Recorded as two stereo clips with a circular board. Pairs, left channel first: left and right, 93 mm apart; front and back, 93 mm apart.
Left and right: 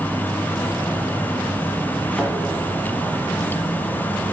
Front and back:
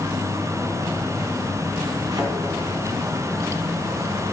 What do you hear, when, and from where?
2.1 s a thud: 155° left, 1.6 m